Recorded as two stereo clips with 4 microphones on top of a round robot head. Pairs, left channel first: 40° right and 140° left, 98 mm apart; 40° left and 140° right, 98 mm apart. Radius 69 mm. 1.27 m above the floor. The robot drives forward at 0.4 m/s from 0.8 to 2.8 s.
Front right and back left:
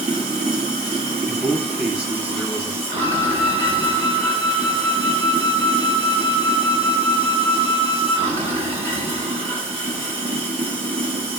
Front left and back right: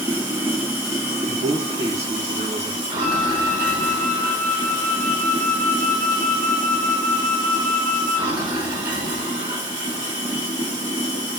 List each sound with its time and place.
0.0 s running water: 155° left, 0.8 m; by 11.4 s 170° left, 1.4 m
1.3 s a man speaking: 135° right, 0.8 m; by 2.8 s 155° right, 1.3 m
3.0 s a flute: 150° right, 1.2 m